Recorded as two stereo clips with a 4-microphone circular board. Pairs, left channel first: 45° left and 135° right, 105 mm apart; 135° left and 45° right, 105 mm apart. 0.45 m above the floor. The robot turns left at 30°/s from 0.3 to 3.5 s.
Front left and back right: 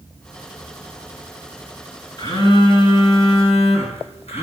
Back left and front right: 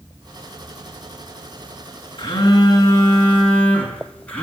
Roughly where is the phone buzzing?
Left.